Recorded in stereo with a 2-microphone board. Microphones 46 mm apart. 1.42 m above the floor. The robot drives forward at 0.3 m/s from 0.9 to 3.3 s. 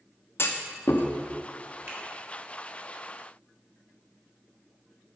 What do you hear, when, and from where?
0.4 s a clunk: 55° left (ahead or behind), 0.9 m
1.9 s a finger snap: 50° right (ahead or behind), 3.5 m